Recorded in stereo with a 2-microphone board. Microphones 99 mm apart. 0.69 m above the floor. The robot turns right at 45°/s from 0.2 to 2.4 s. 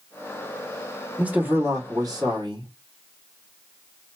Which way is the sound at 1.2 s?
165° right.